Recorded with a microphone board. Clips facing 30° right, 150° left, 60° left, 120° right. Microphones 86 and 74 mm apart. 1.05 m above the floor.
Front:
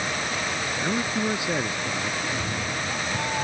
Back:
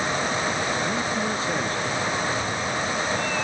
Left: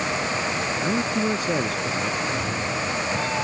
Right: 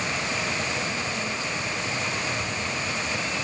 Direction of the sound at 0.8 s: 45° left.